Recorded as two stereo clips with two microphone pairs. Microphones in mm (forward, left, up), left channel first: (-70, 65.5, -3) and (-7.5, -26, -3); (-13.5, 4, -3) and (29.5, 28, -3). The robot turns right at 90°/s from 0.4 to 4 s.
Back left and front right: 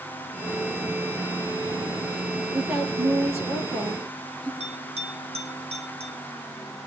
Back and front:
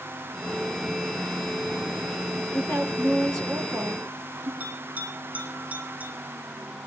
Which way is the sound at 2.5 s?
140° right.